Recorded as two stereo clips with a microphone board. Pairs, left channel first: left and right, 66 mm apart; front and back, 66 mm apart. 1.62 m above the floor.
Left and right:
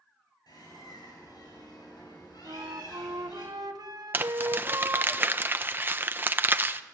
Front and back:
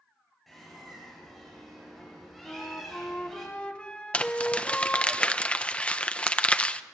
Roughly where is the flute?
Right.